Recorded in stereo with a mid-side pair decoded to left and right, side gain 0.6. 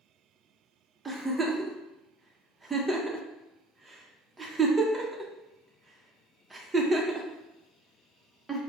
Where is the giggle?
20° right, 0.7 m.